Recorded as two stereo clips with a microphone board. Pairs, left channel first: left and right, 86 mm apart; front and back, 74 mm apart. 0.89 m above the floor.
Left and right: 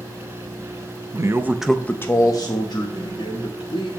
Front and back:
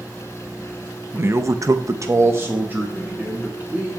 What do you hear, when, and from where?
1.1 s a man speaking: 125° right, 0.7 m; by 3.9 s 110° left, 2 m